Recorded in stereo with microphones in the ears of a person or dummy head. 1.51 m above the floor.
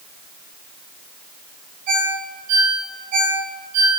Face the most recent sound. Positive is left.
turn(degrees=-45)  # may be behind; listen again after turning